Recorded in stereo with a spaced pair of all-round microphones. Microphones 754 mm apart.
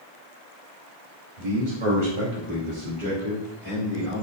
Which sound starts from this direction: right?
A man speaking, at 1.4 s.